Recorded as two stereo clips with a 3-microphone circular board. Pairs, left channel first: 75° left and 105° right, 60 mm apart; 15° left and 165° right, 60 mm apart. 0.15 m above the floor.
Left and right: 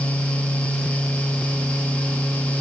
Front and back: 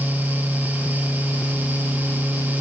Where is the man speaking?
I don't hear a man speaking.